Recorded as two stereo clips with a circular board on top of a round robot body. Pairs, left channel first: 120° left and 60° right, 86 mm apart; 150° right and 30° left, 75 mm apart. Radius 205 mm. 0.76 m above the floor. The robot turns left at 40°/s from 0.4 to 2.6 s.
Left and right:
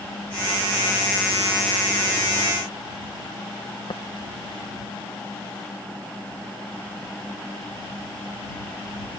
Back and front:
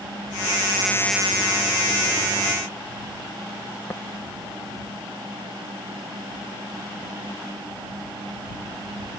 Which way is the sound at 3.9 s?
155° left.